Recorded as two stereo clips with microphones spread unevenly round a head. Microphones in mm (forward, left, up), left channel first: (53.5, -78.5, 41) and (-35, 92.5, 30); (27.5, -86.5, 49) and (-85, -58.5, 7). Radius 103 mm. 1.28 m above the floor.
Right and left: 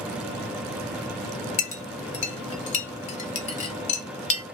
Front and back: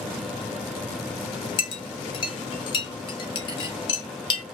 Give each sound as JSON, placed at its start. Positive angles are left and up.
{"t": 1.6, "sound": "a clink", "azimuth_deg": -15, "distance_m": 0.7}